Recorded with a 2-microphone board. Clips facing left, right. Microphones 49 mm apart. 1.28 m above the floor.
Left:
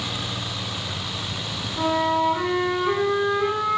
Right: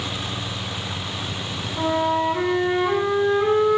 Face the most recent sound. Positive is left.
turn(degrees=-10)  # may be behind; listen again after turning